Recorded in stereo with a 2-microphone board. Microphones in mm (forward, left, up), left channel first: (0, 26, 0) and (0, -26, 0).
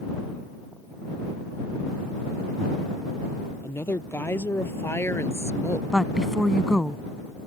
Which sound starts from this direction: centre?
A woman speaking, at 5.9 s.